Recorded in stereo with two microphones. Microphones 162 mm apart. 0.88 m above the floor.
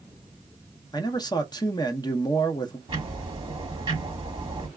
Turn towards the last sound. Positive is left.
turn(degrees=-30)  # may be behind; listen again after turning